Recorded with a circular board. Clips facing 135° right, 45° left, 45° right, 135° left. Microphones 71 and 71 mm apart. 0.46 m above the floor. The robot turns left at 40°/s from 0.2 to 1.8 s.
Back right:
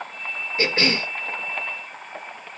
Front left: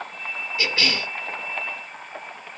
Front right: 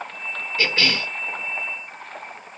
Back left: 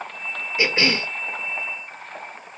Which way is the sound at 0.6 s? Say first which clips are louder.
Back right 3 dB, back left 2 dB; 165° right.